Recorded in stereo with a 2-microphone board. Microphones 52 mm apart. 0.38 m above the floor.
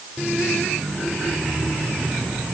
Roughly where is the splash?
No splash in this recording.